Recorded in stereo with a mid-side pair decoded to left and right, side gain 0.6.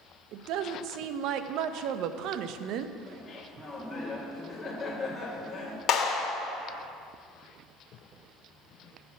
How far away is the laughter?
About 1.8 m.